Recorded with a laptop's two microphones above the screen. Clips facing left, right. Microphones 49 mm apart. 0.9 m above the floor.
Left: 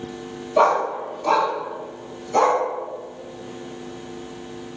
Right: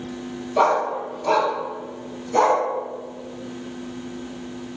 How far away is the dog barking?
About 1.4 m.